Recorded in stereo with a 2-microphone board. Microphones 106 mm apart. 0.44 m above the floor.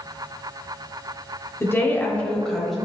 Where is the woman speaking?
25° left (ahead or behind), 1.4 m; by 2.8 s centre (ahead or behind), 1.9 m.